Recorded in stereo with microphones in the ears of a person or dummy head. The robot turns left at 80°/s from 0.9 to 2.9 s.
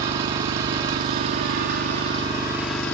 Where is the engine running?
40° right, 0.9 m; by 2.9 s 160° left, 0.9 m.